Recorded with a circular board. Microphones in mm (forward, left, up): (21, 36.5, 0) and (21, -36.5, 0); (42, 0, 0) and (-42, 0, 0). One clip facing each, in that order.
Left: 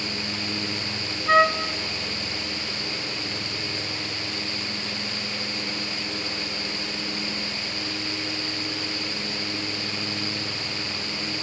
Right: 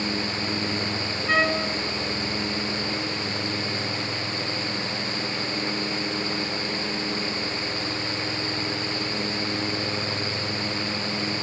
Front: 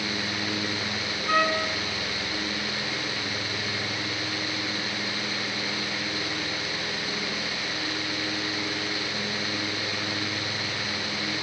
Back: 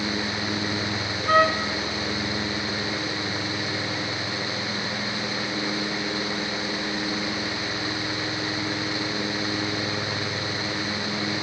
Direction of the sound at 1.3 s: 145° left.